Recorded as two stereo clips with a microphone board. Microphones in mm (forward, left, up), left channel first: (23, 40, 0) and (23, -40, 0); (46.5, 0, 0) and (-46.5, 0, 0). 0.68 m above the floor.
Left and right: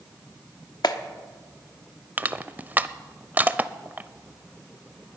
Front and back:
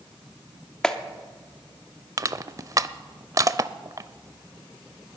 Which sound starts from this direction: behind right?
Crushing, at 2.2 s.